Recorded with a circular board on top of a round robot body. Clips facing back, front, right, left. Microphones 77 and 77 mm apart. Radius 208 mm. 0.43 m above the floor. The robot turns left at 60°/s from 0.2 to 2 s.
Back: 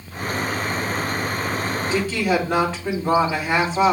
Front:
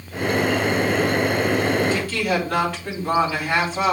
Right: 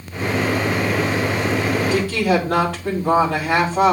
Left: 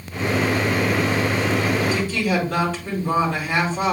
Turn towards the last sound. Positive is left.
turn(degrees=-105)